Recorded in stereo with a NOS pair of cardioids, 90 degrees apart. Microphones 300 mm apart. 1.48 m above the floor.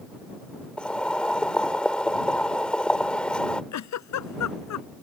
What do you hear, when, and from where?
0.8 s boiling: 5° left
3.7 s a giggle: 65° left